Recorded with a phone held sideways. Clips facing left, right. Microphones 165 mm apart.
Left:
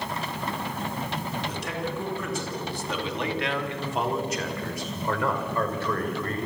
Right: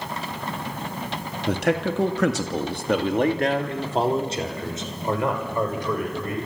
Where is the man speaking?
65° right (ahead or behind), 2.5 m; by 6.4 s 15° right (ahead or behind), 6 m.